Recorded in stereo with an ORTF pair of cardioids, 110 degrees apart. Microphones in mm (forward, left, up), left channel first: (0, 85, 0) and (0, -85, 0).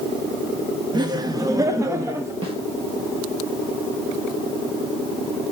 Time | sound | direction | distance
0.9 | laughter | 25° right | 1.3 m
2.4 | a snare drum | 35° right | 2 m